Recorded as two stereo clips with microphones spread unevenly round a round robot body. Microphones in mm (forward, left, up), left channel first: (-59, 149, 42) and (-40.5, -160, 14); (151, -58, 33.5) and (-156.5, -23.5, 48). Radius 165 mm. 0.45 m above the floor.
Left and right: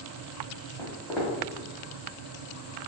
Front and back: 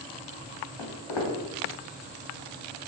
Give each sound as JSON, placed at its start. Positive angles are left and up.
{"t": 0.8, "sound": "footsteps", "azimuth_deg": 5, "distance_m": 1.2}